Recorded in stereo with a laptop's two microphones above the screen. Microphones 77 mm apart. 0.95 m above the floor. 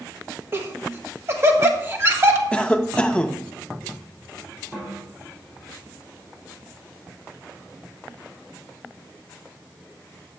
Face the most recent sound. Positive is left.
turn(degrees=-20)  # may be behind; listen again after turning